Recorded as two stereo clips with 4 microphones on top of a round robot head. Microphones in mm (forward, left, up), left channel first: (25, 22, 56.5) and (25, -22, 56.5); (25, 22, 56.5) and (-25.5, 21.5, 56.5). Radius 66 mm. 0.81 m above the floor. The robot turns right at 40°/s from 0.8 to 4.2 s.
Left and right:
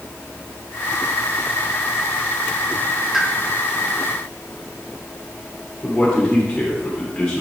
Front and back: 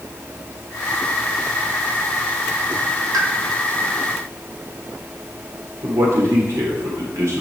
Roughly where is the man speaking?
Behind.